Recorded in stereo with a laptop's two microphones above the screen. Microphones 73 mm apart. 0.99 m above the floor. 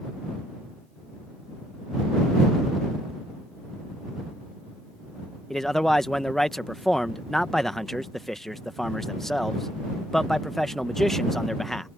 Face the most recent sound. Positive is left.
turn(degrees=5)  # may be behind; listen again after turning